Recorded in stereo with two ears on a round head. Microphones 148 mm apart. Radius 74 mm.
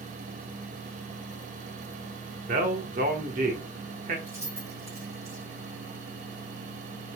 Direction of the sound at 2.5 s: 45° right (ahead or behind).